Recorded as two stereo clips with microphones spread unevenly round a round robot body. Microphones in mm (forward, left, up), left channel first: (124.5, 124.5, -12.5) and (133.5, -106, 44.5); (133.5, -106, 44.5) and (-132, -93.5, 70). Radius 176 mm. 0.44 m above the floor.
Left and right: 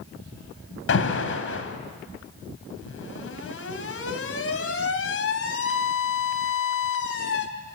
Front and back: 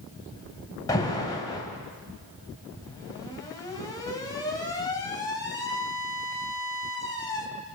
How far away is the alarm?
About 3 m.